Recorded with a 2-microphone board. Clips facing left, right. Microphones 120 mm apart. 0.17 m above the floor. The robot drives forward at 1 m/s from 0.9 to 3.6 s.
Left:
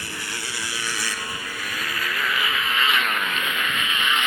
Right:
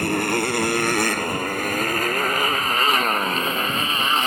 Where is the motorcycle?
55° right (ahead or behind); by 4.3 s 35° right (ahead or behind).